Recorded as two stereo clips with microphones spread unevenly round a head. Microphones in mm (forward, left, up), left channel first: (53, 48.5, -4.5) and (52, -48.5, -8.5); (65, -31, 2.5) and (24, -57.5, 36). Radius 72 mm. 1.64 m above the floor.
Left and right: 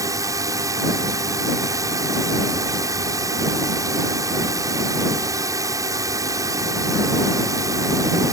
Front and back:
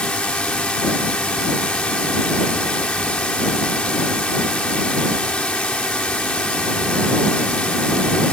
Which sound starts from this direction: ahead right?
A drone, at 0.0 s.